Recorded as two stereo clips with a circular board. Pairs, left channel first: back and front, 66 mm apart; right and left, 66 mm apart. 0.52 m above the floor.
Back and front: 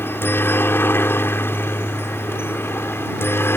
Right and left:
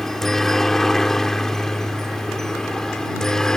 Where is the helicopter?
170° right; by 3.6 s 165° right.